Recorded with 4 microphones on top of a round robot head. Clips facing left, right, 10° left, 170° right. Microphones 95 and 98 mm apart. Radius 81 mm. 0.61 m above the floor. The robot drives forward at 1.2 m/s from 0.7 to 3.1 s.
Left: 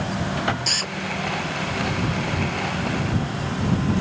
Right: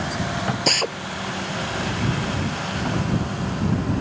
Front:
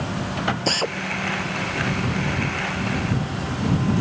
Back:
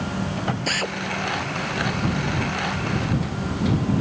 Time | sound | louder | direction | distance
0.7 | a drill | right 6 dB, front 3 dB | 60° right | ?